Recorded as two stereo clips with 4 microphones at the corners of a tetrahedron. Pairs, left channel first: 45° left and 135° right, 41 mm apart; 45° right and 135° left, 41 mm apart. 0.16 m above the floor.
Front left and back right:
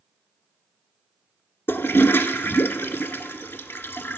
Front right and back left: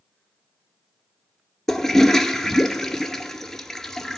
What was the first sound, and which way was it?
A toilet flushing, 35° left.